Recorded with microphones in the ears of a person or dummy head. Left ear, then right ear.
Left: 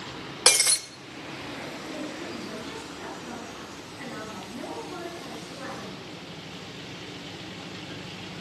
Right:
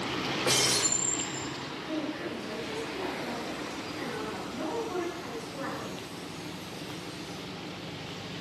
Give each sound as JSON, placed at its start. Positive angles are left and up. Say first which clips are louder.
{"t": 0.5, "sound": "breaking glass", "louder": "left 5 dB", "side_deg": 55, "distance_m": 0.9}
{"t": 1.9, "sound": "a woman speaking", "louder": "right 1 dB", "side_deg": -50, "distance_m": 7.5}